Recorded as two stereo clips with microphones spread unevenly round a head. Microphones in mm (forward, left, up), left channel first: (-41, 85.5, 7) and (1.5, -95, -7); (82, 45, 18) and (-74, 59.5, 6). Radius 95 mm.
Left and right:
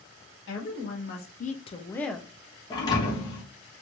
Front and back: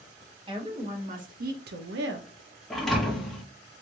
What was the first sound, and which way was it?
A woman speaking, 120° left.